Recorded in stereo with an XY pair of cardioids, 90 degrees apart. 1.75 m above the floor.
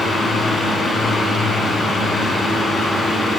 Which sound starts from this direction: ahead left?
A fan, at 0.0 s.